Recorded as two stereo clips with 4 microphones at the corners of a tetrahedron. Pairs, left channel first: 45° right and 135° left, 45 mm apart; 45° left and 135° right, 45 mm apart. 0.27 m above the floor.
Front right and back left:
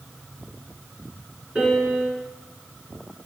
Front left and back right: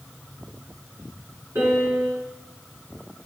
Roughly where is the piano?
Behind.